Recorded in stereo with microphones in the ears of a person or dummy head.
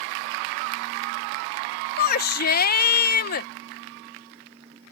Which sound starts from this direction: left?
A shout, at 2.0 s.